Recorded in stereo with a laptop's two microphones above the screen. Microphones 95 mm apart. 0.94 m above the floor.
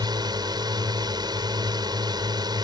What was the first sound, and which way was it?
A drone, 45° right (ahead or behind).